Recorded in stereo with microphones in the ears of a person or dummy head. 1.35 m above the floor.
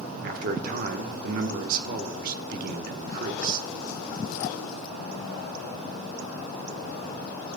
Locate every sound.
0.2 s a man speaking: 45° right (ahead or behind), 1.2 m